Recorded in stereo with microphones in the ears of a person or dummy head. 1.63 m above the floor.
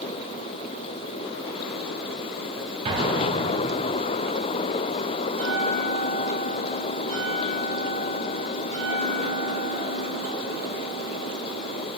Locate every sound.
2.9 s an explosion: 30° right (ahead or behind), 2 m
5.3 s a bell: 45° right (ahead or behind), 4 m